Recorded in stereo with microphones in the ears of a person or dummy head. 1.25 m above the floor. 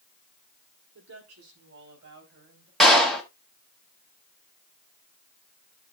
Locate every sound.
0.9 s a woman speaking: 80° right, 3.5 m; by 2.7 s 50° right (ahead or behind), 3 m
2.8 s a clap: 5° left (ahead or behind), 1.6 m